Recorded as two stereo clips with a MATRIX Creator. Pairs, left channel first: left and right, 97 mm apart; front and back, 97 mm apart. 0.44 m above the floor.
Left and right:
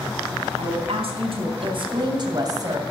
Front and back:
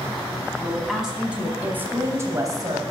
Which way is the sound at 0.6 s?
90° right.